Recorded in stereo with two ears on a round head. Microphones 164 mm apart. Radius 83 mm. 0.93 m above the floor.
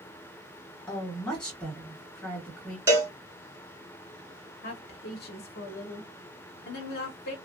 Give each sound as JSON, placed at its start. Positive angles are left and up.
{"t": 0.9, "sound": "a woman speaking", "side_deg": 5, "distance_m": 1.7}
{"t": 2.9, "sound": "a cowbell", "side_deg": -15, "distance_m": 1.0}
{"t": 4.6, "sound": "a woman speaking", "side_deg": 55, "distance_m": 0.7}